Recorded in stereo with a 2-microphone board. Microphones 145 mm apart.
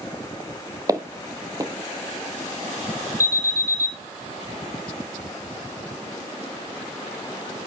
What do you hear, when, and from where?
0.9 s footsteps: 25° right (ahead or behind), 1.0 m
3.2 s an alarm: 20° right (ahead or behind), 4 m